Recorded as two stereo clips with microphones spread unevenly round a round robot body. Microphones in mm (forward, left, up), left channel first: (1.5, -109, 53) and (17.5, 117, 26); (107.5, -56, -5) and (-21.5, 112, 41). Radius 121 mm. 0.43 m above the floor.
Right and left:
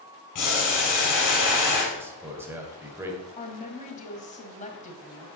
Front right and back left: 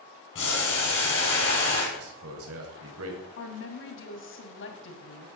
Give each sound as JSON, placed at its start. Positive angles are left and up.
{"t": 0.3, "sound": "boiling", "azimuth_deg": -100, "distance_m": 6.5}
{"t": 1.9, "sound": "a man speaking", "azimuth_deg": 165, "distance_m": 2.5}
{"t": 3.4, "sound": "a woman speaking", "azimuth_deg": -30, "distance_m": 2.5}